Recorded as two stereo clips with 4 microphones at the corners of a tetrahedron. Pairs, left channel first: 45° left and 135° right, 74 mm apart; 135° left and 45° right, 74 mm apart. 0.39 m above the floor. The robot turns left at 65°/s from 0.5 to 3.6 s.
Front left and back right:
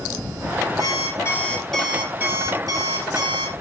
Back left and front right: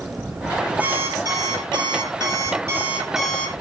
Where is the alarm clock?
25° left, 5 m; by 3.5 s 155° right, 5 m.